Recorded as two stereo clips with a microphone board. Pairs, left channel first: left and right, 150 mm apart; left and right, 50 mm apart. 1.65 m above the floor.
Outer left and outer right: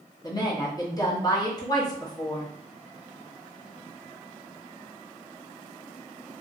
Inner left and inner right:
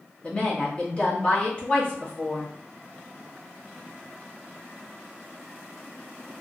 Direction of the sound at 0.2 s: 25° left (ahead or behind).